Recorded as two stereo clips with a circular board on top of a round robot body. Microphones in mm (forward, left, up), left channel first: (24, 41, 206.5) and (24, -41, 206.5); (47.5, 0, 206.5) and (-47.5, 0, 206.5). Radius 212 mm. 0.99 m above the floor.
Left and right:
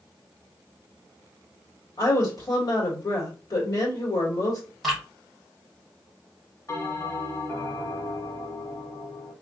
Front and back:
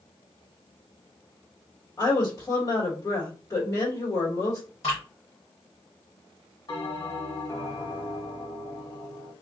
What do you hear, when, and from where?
2.0 s a woman speaking: 55° left, 1.7 m
4.8 s dripping: 5° left, 1.4 m
6.7 s a bell: 40° left, 1.9 m